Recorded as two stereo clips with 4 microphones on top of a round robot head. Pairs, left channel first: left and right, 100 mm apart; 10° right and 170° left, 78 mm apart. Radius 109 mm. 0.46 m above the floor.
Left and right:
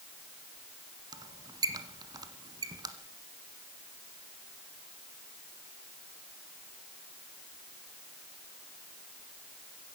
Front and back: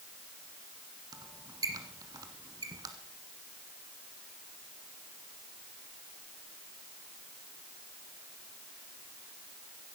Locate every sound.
1.1 s a squeak: 140° right, 1.5 m